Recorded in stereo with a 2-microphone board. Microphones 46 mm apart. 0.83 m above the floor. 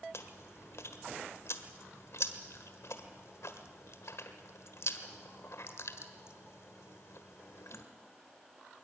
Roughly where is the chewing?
Left.